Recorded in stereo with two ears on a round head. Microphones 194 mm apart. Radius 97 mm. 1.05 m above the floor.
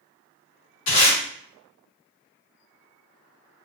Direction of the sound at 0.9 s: 75° left (ahead or behind).